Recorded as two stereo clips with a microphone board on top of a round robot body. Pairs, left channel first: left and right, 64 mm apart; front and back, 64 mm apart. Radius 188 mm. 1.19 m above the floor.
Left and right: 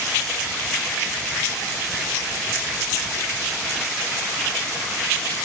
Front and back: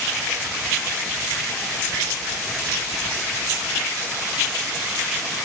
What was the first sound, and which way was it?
Only background noise.